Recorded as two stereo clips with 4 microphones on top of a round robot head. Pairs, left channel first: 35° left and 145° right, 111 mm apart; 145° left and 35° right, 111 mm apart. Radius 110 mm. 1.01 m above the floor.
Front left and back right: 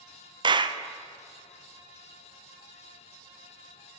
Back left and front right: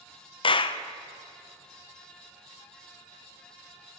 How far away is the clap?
About 0.6 m.